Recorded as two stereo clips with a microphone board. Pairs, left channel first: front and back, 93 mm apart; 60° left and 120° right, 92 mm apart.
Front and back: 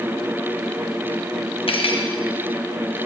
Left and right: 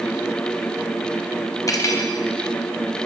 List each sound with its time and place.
1.7 s cutlery clinking: 5° left, 0.8 m